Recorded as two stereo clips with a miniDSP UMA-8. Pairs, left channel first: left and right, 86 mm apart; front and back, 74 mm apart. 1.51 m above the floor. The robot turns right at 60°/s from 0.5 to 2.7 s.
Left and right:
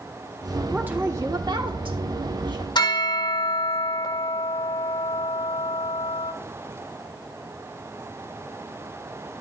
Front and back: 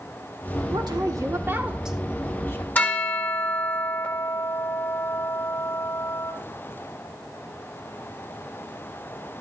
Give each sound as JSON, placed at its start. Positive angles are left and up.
{"t": 0.7, "sound": "a woman speaking", "azimuth_deg": -170, "distance_m": 1.6}
{"t": 2.8, "sound": "a bell", "azimuth_deg": 60, "distance_m": 1.6}